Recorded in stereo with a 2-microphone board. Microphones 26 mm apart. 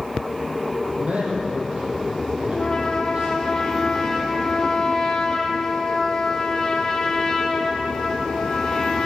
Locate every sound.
0.9 s a man speaking: 50° right (ahead or behind), 5.5 m
2.5 s a trumpet: 25° left (ahead or behind), 1.8 m